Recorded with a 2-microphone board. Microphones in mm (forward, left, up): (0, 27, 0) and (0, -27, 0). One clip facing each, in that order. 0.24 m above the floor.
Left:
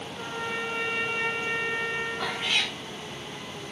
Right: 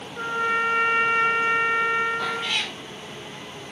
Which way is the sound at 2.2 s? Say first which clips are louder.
Right 2 dB; 15° left (ahead or behind).